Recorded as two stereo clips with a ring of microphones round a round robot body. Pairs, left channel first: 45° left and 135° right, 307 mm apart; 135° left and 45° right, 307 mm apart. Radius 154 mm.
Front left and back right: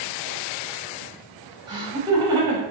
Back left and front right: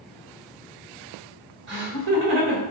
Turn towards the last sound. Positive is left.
turn(degrees=-60)